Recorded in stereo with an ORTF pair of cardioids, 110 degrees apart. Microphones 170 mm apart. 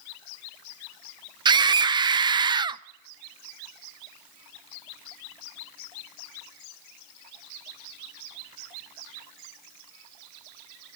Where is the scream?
25° right, 0.6 m.